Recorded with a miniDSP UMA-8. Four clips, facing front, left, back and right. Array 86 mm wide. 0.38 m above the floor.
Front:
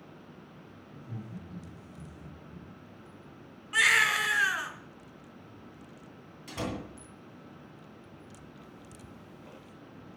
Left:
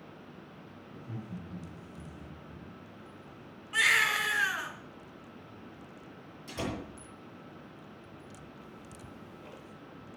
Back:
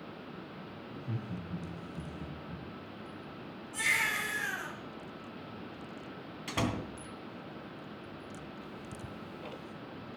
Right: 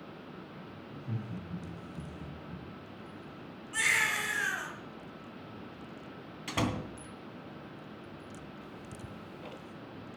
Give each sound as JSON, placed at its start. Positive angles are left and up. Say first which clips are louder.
{"t": 0.9, "sound": "laughter", "louder": "right 2 dB, back 3 dB", "azimuth_deg": -155, "distance_m": 5.5}
{"t": 3.7, "sound": "a baby crying", "louder": "left 3 dB, front 7 dB", "azimuth_deg": 20, "distance_m": 2.5}
{"t": 6.5, "sound": "a door slam", "louder": "right 4 dB, back 2 dB", "azimuth_deg": -120, "distance_m": 2.5}
{"t": 8.6, "sound": "ticking", "louder": "right 3 dB, back 5 dB", "azimuth_deg": -150, "distance_m": 1.5}